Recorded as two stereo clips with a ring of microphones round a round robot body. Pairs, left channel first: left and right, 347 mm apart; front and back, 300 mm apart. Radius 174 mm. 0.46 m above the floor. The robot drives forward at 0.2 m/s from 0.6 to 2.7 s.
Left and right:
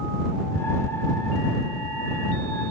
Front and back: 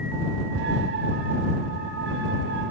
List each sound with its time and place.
0.6 s ticking: 75° right, 5 m